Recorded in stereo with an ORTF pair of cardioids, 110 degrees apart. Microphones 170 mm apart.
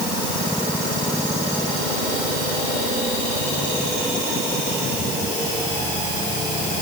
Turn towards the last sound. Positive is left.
No sound to turn to.